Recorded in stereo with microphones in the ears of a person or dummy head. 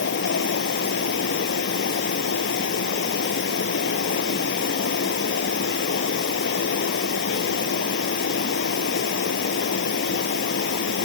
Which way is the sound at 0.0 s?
65° left (ahead or behind).